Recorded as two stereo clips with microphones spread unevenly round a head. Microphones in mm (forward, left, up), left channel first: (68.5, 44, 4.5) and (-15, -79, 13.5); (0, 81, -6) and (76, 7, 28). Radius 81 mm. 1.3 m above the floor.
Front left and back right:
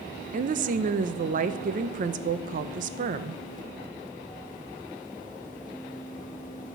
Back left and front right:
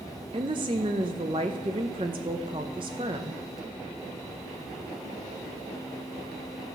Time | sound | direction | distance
0.3 | a woman speaking | 95° right | 0.6 m